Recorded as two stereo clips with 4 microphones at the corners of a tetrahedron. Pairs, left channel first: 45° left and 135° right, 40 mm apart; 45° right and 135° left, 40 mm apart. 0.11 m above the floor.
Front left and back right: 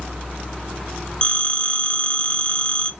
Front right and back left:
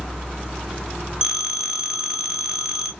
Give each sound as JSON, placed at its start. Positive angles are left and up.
{"t": 1.2, "sound": "a phone ringing", "azimuth_deg": 75, "distance_m": 0.7}